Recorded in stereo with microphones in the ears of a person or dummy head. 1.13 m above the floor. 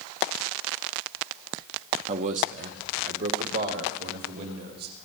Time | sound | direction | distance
2.1 | a man speaking | 35° right (ahead or behind) | 0.8 m